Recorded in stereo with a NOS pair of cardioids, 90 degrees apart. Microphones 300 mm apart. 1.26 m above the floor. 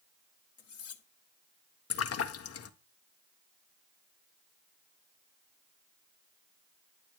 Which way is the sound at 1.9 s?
50° left.